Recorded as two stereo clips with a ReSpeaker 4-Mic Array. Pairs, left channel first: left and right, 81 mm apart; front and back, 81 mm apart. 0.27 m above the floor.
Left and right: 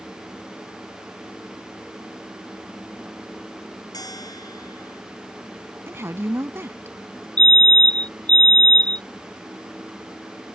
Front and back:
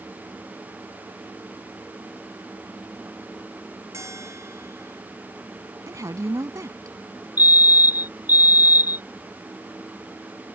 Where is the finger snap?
No finger snap in this recording.